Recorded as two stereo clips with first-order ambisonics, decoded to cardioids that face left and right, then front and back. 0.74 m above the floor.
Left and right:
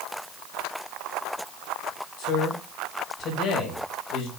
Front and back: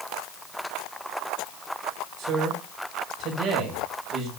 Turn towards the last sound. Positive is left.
turn(degrees=130)